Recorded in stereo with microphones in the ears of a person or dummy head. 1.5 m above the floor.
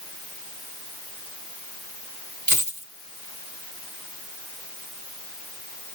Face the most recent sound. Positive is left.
turn(degrees=-40)  # may be behind; listen again after turning